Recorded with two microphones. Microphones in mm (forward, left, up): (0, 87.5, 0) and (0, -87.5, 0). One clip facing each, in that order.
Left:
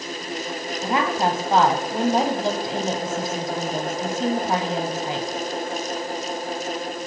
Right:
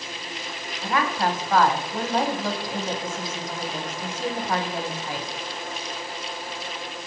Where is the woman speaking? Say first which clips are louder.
Left 2 dB; 25° left (ahead or behind), 1.0 m.